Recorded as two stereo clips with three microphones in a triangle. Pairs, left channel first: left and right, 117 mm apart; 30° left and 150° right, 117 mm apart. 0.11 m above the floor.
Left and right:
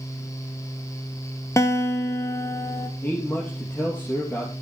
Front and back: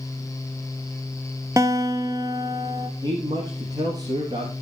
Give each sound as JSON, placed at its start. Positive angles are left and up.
{"t": 1.6, "sound": "a guitar", "azimuth_deg": 150, "distance_m": 1.1}
{"t": 3.0, "sound": "a man speaking", "azimuth_deg": 160, "distance_m": 2.5}